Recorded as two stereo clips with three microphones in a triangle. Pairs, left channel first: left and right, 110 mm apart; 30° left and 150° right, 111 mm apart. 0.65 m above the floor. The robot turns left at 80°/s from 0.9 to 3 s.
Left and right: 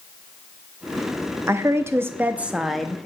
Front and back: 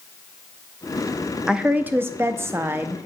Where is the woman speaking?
75° right, 0.5 m; by 3.1 s 160° left, 0.5 m.